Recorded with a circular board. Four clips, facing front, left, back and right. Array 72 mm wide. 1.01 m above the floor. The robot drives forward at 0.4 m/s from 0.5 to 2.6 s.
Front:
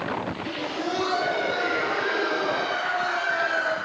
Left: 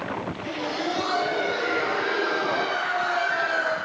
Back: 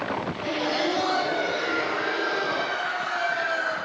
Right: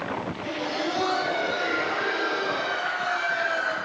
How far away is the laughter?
About 1.1 m.